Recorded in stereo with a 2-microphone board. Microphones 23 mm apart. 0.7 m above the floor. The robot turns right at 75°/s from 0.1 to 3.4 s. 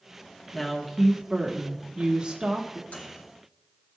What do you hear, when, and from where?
0.5 s a woman speaking: 170° left, 1.6 m; by 2.8 s 20° right, 1.6 m
2.9 s a microwave: 80° left, 3 m; by 3.3 s 50° left (ahead or behind), 3 m